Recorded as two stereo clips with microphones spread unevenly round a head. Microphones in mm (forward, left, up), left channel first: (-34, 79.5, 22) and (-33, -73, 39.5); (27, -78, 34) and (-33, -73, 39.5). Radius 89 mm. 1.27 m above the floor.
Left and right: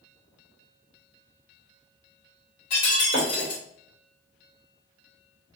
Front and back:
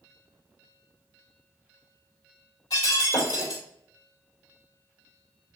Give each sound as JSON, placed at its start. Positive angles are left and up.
{"t": 2.7, "sound": "breaking glass", "azimuth_deg": 45, "distance_m": 2.0}